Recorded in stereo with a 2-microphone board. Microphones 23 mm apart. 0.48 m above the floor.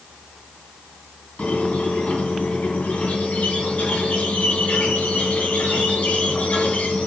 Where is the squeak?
60° left (ahead or behind), 2.5 m.